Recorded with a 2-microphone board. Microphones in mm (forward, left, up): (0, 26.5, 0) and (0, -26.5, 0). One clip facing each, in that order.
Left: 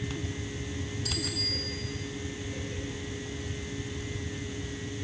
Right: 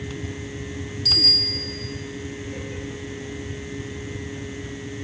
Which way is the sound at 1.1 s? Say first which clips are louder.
Right 11 dB; 75° right (ahead or behind).